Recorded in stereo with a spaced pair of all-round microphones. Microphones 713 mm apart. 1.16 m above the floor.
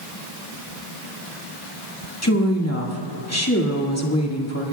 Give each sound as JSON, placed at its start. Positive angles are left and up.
{"t": 2.2, "sound": "a woman speaking", "side_deg": 20, "distance_m": 2.0}